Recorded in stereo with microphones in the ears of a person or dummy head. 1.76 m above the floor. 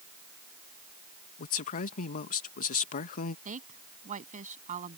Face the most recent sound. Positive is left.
turn(degrees=-45)  # may be behind; listen again after turning